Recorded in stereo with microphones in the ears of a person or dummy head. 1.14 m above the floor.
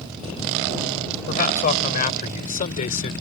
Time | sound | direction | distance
1.3 | a man speaking | 45° left (ahead or behind) | ?